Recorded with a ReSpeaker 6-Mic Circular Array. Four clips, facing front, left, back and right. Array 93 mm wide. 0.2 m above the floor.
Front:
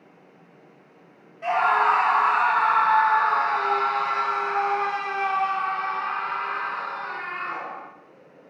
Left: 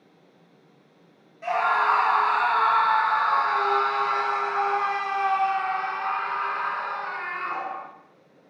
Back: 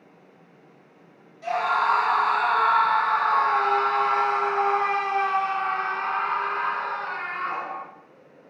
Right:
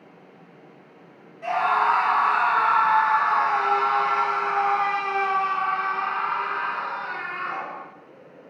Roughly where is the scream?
Ahead.